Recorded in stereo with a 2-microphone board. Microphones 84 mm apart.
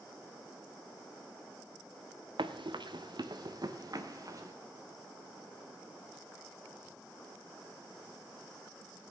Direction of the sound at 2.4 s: 85° right.